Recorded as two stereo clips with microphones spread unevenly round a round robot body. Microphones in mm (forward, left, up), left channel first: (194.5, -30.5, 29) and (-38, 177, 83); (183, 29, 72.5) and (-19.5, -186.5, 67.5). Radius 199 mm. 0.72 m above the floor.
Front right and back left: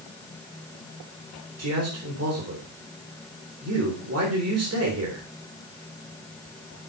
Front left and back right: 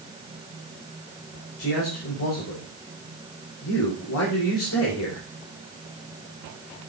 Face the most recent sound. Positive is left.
turn(degrees=95)